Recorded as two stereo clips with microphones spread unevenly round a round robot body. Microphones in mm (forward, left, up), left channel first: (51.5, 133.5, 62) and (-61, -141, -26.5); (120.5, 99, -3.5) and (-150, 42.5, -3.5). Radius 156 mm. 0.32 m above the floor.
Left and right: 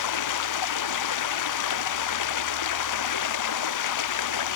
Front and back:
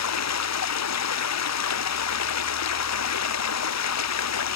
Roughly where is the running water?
Ahead left.